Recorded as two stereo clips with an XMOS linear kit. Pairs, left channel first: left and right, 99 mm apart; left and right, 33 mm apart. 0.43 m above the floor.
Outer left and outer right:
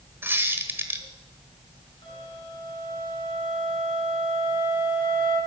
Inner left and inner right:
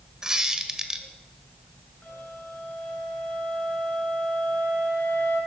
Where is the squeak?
20° right (ahead or behind), 1.5 m.